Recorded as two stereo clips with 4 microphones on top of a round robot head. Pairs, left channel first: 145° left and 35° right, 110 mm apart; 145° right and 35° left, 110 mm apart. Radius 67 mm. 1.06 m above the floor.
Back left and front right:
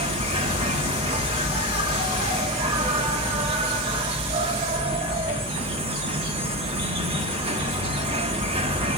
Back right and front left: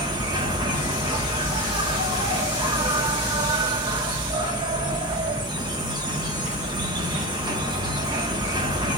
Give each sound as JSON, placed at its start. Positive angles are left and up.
{"t": 0.0, "sound": "an insect", "azimuth_deg": -10, "distance_m": 0.9}